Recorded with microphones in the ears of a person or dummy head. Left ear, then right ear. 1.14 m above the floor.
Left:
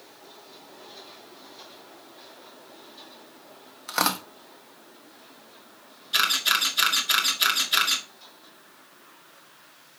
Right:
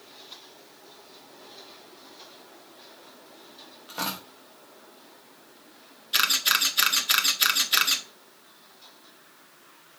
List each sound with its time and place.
3.9 s tearing paper: 55° left (ahead or behind), 1.3 m
6.1 s a camera shutter: centre (ahead or behind), 1.8 m